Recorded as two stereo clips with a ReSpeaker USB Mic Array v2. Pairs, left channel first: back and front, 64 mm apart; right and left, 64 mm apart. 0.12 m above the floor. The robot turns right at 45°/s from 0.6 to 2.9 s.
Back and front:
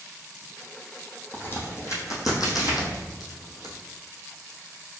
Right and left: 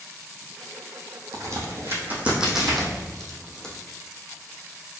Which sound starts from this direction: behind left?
A crack, at 1.3 s.